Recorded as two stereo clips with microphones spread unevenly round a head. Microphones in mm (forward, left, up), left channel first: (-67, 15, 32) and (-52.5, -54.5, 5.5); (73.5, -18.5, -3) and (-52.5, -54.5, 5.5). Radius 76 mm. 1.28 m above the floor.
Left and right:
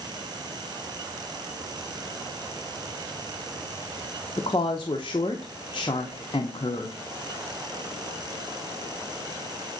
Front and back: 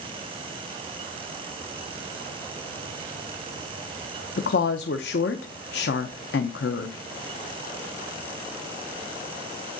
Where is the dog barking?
I don't hear a dog barking.